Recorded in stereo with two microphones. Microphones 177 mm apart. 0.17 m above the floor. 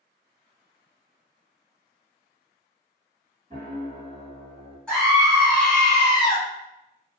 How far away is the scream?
About 1.4 m.